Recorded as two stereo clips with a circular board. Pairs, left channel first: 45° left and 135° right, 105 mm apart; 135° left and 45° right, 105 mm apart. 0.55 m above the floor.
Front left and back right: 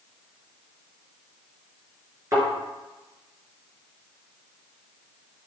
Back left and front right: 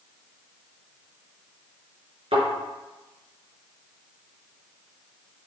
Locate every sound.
2.3 s a thud: 75° right, 3.5 m